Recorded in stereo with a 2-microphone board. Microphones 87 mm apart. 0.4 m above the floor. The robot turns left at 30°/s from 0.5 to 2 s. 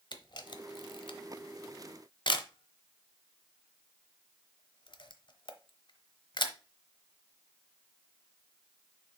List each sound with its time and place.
0.1 s a camera shutter: 60° left (ahead or behind), 0.9 m